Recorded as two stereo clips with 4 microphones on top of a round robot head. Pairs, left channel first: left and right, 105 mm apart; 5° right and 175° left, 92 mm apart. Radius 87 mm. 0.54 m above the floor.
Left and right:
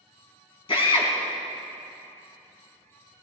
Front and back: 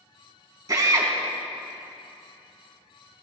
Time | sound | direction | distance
0.7 | a drill | 130° left | 3.5 m